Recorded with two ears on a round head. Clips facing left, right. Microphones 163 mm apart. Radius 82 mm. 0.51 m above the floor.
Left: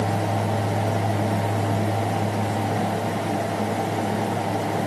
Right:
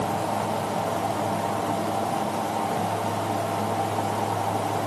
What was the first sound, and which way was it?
Only background noise.